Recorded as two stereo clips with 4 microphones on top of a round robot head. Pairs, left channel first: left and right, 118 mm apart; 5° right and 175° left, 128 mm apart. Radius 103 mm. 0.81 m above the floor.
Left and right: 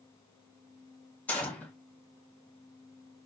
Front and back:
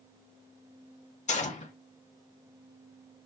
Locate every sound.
1.3 s a gunshot: 15° left, 1.2 m